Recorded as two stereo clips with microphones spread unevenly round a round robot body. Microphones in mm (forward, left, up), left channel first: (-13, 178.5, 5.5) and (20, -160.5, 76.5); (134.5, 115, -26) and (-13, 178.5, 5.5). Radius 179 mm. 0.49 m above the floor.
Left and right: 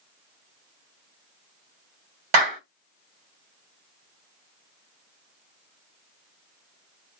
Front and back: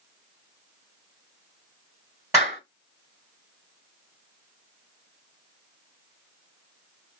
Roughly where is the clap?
Behind right.